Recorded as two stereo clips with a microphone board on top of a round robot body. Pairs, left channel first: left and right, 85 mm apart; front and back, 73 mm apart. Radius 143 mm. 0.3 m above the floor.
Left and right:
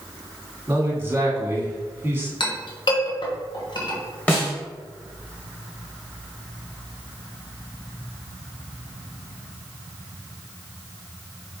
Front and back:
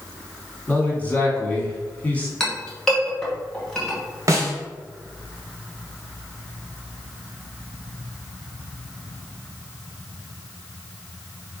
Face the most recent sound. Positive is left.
turn(degrees=155)